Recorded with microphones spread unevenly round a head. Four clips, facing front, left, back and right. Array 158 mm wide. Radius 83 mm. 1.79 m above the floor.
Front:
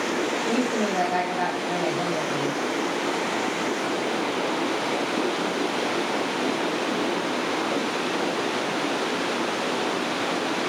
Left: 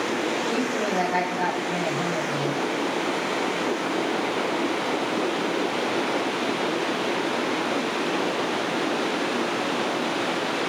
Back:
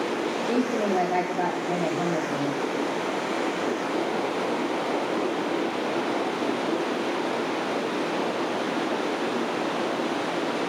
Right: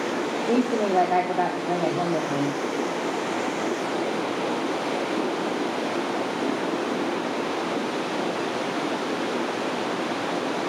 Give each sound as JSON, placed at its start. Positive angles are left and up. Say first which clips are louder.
{"t": 0.5, "sound": "a woman speaking", "louder": "right 3 dB, back 2 dB", "azimuth_deg": -110, "distance_m": 5.0}